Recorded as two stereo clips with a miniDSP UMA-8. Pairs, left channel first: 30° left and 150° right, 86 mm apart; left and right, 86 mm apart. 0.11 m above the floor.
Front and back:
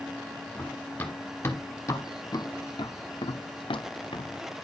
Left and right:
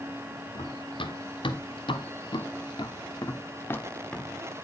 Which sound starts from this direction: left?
Running footsteps, at 0.6 s.